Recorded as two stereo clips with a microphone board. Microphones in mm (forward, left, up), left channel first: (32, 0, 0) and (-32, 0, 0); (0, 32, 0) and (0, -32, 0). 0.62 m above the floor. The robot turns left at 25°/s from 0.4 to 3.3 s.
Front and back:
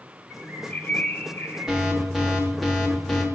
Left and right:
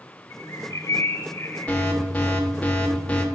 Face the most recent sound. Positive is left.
turn(degrees=65)